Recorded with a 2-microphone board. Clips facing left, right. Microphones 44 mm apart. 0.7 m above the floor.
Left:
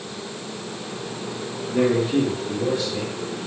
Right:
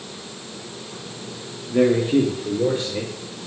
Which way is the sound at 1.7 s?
10° right (ahead or behind).